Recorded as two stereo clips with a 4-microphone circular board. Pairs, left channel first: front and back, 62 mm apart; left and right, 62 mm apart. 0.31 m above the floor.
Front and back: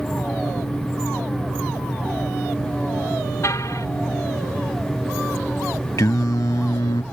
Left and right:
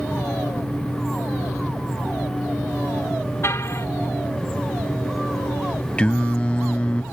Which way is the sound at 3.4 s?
40° left.